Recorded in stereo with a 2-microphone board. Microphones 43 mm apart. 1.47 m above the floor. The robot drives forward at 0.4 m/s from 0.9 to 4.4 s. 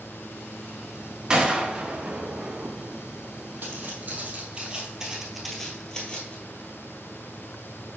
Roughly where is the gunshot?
Centre.